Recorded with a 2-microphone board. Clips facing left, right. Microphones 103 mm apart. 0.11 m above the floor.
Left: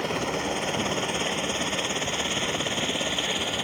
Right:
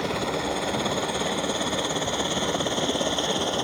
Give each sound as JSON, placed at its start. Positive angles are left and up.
{"t": 0.0, "sound": "a helicopter", "side_deg": -5}